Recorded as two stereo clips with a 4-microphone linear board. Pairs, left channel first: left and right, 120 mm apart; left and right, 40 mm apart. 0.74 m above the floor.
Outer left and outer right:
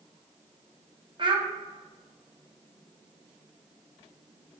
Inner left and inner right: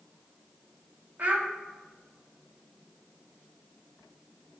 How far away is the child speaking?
About 0.6 m.